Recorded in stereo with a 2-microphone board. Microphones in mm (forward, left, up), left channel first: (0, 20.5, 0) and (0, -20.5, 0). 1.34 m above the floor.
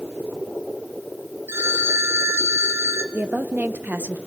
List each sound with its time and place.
1.5 s a phone ringing: 75° right (ahead or behind), 1.4 m
3.1 s a woman speaking: 55° right (ahead or behind), 0.8 m